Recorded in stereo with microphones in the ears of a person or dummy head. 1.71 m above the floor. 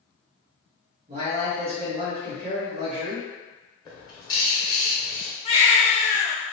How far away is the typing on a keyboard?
I don't hear typing on a keyboard.